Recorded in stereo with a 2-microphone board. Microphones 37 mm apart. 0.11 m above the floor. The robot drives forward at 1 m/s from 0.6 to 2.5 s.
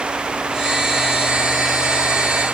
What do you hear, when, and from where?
Only background noise.